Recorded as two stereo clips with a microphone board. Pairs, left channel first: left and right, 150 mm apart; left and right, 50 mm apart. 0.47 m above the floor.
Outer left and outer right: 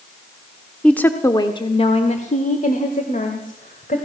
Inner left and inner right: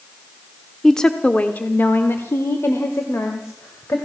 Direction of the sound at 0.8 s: 5° left (ahead or behind).